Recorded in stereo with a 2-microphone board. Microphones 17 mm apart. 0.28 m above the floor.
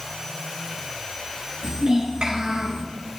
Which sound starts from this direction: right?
A child speaking, at 1.6 s.